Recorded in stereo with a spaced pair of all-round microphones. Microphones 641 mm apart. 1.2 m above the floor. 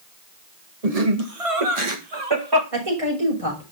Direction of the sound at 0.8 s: 70° right (ahead or behind).